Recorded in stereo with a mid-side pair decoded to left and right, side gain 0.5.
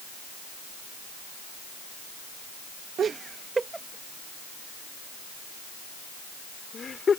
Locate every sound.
3.0 s laughter: 50° right; by 7.2 s 40° left